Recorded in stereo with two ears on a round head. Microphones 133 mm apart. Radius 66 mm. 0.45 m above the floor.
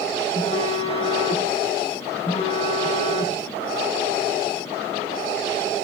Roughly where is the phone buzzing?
Left.